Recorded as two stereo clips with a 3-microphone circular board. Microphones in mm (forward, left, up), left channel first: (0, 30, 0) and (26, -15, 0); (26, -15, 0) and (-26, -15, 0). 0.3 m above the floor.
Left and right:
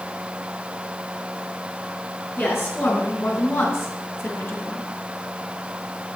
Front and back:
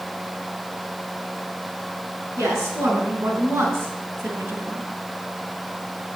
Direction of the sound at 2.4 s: 165° left.